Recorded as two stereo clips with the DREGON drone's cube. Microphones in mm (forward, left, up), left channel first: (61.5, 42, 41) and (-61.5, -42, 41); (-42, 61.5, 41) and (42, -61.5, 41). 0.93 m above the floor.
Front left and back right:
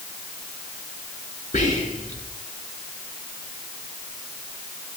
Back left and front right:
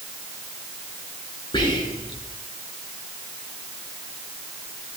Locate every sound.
1.5 s whispering: 70° left, 3.5 m